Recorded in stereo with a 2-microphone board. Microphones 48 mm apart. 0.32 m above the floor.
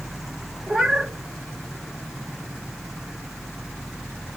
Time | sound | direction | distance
0.7 | a cat meowing | 15° right (ahead or behind) | 0.6 m